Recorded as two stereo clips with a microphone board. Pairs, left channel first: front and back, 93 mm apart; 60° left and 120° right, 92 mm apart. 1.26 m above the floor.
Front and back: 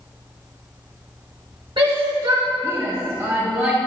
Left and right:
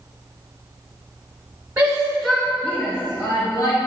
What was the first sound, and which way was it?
A shout, 170° left.